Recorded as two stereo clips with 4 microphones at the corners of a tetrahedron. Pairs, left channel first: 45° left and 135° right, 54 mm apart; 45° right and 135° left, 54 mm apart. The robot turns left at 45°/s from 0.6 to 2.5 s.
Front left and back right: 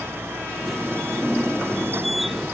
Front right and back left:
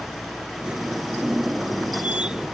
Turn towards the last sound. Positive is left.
No sound to turn to.